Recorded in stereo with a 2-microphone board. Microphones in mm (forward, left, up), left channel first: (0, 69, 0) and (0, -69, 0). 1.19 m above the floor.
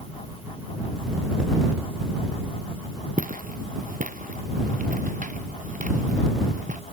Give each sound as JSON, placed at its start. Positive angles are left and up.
{"t": 3.2, "sound": "footsteps", "side_deg": -80}